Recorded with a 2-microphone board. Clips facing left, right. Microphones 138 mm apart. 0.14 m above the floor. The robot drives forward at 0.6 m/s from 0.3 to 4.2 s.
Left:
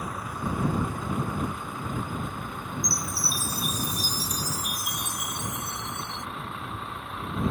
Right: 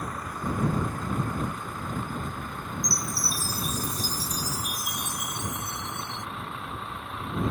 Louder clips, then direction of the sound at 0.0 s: Even; 5° left (ahead or behind).